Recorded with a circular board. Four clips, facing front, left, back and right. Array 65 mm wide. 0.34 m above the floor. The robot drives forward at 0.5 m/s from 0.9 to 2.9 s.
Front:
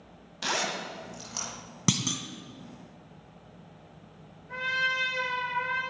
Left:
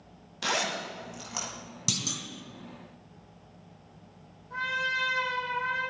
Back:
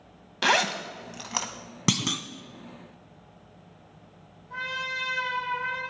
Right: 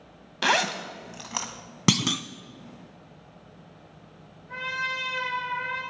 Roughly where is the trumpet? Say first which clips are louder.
Left 1 dB, front 4 dB; ahead right.